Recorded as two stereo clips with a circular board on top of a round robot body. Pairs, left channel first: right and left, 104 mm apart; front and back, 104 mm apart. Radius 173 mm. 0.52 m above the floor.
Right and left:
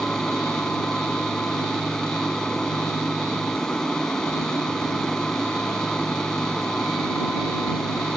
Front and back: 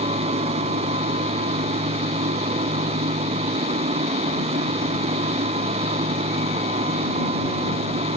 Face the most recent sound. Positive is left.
turn(degrees=-175)